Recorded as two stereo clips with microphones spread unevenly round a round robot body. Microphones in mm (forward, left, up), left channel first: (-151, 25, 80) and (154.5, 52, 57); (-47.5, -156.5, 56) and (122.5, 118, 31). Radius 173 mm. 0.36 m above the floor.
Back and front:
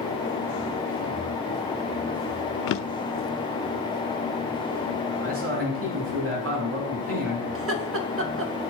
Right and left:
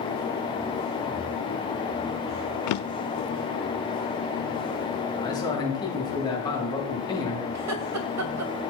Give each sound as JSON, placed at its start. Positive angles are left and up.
{"t": 2.7, "sound": "a drawer", "azimuth_deg": -135, "distance_m": 0.6}
{"t": 5.2, "sound": "a man speaking", "azimuth_deg": -45, "distance_m": 6.0}
{"t": 7.5, "sound": "laughter", "azimuth_deg": 40, "distance_m": 2.0}